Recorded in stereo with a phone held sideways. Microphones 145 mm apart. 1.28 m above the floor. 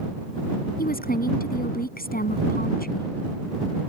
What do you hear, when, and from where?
0.8 s a woman speaking: 70° left (ahead or behind)